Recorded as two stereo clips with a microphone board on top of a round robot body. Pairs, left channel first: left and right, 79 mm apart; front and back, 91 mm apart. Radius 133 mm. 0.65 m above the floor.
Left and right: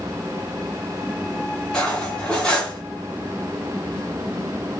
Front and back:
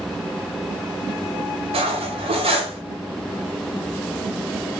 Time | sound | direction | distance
1.7 | cutlery clinking | 170° left | 0.8 m